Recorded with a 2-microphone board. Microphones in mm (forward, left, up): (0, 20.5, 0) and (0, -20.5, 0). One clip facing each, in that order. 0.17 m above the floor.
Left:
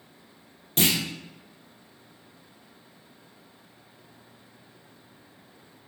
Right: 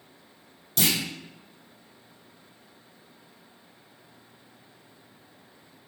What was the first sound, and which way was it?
A clunk, 40° left (ahead or behind).